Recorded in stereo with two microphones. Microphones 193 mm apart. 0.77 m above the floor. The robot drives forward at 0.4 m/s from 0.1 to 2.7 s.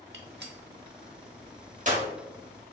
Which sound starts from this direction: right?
A gunshot, at 0.1 s.